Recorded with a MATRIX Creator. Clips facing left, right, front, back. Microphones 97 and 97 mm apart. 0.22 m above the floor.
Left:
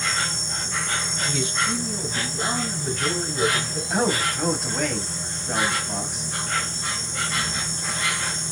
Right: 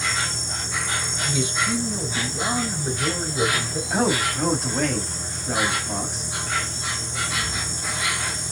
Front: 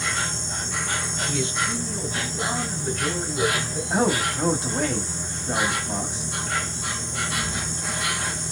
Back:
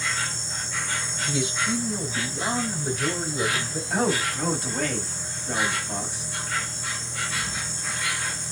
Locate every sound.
0.0 s an insect: 10° right, 1.4 m
1.2 s a man speaking: 125° right, 1.0 m
3.9 s a man speaking: 5° left, 1.0 m